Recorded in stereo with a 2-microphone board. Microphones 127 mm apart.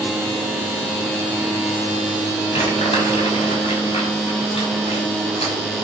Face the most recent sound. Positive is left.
turn(degrees=50)  # may be behind; listen again after turning